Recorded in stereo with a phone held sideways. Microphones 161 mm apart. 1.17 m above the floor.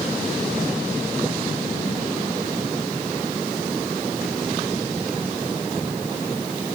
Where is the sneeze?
I don't hear a sneeze.